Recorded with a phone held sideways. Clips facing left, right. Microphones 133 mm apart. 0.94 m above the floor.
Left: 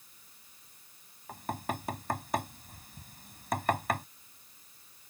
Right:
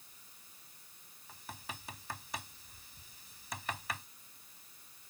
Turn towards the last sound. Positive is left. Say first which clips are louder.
# left 13 dB
turn(degrees=55)  # may be behind; listen again after turning